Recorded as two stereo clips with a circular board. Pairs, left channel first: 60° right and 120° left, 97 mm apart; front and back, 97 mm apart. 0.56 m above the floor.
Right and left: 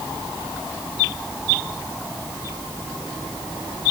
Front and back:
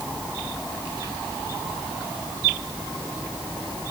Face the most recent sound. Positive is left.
No sound to turn to.